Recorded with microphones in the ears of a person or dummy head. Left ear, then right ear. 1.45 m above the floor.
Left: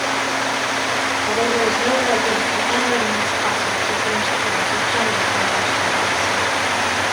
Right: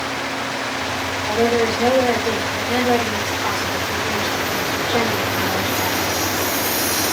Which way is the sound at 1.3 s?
5° left (ahead or behind).